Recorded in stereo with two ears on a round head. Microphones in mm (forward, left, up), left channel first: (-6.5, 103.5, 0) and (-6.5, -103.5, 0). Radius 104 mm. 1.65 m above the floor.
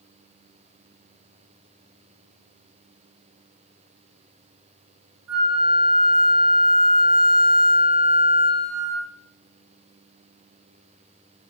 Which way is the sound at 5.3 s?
65° right (ahead or behind).